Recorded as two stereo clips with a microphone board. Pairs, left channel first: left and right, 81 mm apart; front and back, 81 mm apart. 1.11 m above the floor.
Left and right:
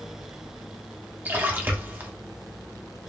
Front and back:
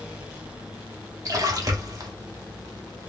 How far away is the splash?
About 0.9 m.